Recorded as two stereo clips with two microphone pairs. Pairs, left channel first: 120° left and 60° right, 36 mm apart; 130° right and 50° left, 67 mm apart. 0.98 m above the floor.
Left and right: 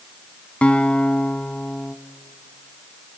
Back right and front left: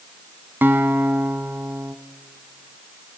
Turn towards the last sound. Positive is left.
turn(degrees=85)